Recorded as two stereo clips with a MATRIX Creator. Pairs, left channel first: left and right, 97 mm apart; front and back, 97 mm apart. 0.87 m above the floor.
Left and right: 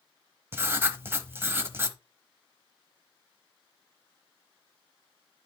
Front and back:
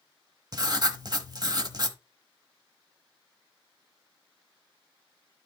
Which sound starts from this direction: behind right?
Writing, at 0.5 s.